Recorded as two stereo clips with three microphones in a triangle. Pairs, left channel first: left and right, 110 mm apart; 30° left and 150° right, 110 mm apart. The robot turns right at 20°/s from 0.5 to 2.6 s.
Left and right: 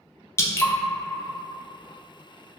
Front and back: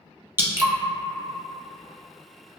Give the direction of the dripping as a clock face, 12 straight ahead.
7 o'clock.